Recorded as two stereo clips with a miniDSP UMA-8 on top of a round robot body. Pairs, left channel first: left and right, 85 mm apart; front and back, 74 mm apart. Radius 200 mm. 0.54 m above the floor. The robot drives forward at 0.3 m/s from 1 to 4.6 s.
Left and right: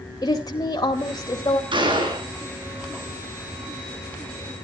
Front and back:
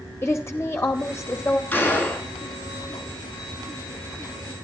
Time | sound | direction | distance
0.2 | a woman speaking | 60° left | 2.0 m
1.7 | a gunshot | 70° right | 9 m